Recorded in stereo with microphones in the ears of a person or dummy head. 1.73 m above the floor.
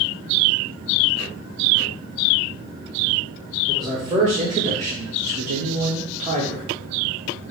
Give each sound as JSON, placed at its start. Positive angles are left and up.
{"t": 3.7, "sound": "a man speaking", "side_deg": -30, "distance_m": 1.2}